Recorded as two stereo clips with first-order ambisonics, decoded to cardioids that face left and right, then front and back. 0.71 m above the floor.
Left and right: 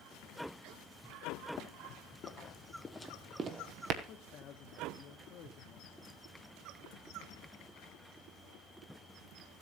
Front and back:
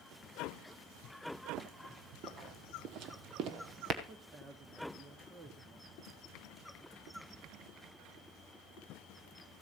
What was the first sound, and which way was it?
Running footsteps, 125° left.